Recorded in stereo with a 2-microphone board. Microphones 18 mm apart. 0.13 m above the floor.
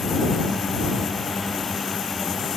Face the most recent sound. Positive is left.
No sound to turn to.